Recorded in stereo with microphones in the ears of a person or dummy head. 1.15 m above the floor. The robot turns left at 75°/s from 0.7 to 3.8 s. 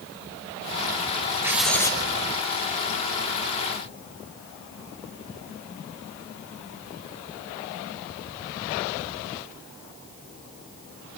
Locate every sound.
1.4 s writing: 165° right, 2 m; by 2.0 s 150° left, 2 m